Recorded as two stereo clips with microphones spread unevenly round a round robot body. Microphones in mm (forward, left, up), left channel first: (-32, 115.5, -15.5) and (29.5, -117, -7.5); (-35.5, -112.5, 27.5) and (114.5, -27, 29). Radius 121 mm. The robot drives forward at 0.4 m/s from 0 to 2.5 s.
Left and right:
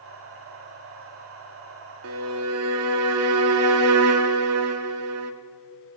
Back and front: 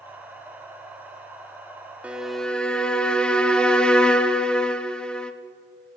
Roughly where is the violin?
Ahead right.